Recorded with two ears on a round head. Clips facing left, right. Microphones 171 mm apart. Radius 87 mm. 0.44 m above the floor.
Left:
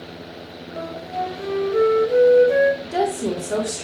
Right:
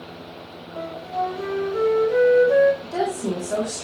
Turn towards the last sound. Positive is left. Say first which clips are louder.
# left 3 dB
turn(degrees=40)  # may be behind; listen again after turning